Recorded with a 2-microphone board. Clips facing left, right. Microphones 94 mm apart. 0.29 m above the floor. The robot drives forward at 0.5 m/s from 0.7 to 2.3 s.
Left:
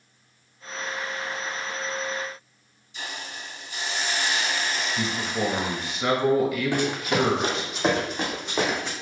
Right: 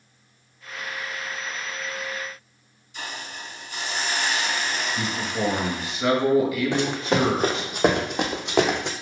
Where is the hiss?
55° right (ahead or behind), 0.8 m.